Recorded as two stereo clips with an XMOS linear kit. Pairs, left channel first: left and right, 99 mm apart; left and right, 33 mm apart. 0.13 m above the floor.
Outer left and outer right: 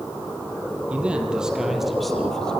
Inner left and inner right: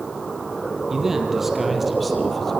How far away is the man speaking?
About 4.5 m.